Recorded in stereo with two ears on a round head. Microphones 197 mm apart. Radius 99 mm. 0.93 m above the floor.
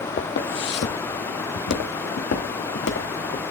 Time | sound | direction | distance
0.2 | footsteps | 50° left (ahead or behind) | 1.4 m